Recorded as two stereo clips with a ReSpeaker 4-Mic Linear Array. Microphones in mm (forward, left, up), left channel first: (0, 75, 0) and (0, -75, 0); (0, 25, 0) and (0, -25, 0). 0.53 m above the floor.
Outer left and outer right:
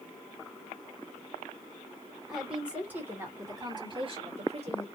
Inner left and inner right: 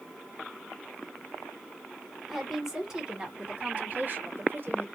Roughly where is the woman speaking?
Centre.